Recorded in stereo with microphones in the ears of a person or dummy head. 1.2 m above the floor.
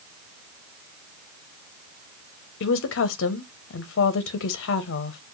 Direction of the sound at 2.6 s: 65° left (ahead or behind).